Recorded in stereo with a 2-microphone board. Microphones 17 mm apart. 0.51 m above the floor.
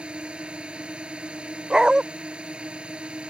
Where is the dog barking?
40° right (ahead or behind).